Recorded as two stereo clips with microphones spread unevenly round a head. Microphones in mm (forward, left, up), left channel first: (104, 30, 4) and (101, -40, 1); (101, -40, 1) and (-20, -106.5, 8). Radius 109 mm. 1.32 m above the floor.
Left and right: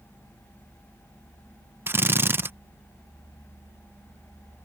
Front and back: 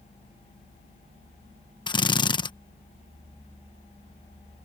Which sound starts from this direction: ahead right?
A drill, at 1.9 s.